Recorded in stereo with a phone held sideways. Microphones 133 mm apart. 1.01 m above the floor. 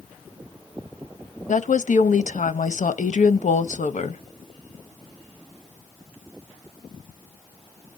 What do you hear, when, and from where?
1.5 s a woman speaking: 70° left (ahead or behind), 0.7 m